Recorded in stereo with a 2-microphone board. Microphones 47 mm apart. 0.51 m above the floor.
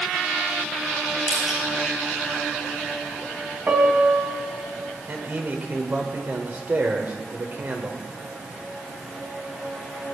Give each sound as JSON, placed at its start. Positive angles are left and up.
{"t": 1.3, "sound": "crushing", "side_deg": -10, "distance_m": 6.0}
{"t": 3.7, "sound": "a piano", "side_deg": -40, "distance_m": 2.0}
{"t": 5.1, "sound": "a man speaking", "side_deg": -45, "distance_m": 2.5}